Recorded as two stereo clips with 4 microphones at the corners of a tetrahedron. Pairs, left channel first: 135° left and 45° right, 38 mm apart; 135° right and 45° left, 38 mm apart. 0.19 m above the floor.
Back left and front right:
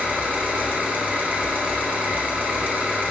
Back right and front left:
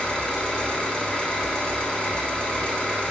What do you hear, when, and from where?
0.0 s an engine running: 85° right, 1.1 m